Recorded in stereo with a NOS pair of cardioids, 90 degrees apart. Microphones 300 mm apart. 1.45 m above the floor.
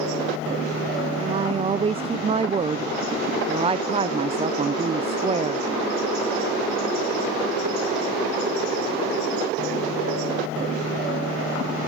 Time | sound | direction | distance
1.2 | a woman speaking | 20° right | 0.6 m